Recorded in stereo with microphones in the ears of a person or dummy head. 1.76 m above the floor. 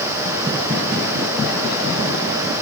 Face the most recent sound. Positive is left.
No sound to turn to.